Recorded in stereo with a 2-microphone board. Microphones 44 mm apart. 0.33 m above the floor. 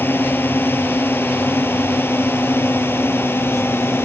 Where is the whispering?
I don't hear whispering.